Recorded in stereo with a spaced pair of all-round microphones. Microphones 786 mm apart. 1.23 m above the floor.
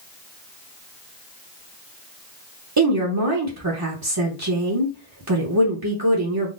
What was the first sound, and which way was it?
A woman speaking, 30° right (ahead or behind).